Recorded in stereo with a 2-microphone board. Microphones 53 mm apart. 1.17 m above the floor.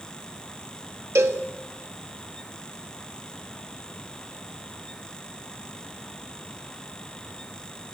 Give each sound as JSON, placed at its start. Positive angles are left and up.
{"t": 1.1, "sound": "a cowbell", "side_deg": -65, "distance_m": 3.0}